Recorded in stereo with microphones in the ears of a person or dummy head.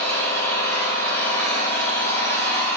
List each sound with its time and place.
0.0 s an engine running: 20° left (ahead or behind), 3 m